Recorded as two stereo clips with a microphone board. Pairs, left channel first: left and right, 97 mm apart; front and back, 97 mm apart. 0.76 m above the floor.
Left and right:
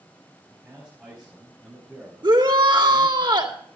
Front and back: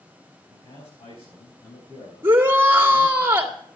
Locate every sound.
0.5 s a man speaking: 15° right, 5 m; by 3.2 s 5° left, 8 m
2.2 s a shout: 115° right, 1.8 m